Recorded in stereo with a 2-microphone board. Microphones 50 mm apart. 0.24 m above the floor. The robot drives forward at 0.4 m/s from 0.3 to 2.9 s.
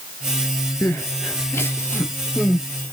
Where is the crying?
70° left (ahead or behind), 0.9 m; by 2.9 s 35° left (ahead or behind), 1.4 m.